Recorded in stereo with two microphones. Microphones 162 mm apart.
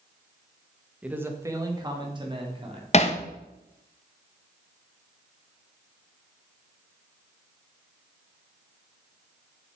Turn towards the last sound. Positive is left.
turn(degrees=40)  # may be behind; listen again after turning